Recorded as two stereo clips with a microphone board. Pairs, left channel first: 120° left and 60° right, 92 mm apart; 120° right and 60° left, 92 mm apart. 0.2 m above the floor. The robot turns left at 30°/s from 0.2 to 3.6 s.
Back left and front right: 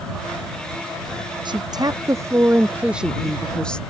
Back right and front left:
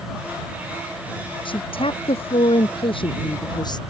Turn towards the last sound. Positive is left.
turn(degrees=-160)